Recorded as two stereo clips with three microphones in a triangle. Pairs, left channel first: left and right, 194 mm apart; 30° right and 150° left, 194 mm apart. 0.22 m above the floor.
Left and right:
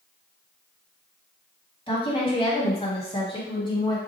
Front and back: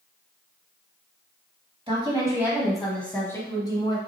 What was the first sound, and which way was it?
A woman speaking, 120° left.